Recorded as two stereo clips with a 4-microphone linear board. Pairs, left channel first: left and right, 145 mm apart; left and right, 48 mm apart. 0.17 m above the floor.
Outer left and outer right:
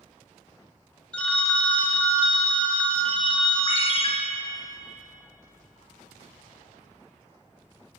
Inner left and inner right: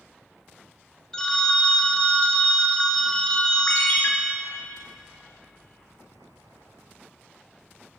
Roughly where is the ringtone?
Left.